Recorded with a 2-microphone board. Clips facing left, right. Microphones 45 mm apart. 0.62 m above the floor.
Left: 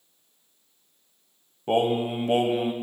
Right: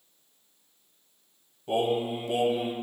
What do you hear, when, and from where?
1.7 s singing: 50° left (ahead or behind), 0.6 m